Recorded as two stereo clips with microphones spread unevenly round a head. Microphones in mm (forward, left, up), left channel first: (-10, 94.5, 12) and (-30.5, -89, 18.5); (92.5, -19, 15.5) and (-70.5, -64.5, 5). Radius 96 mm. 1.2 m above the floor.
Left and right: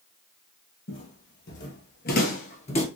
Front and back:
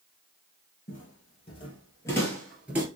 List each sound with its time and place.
0.9 s footsteps: 60° left, 2.5 m; by 2.9 s 125° left, 1.4 m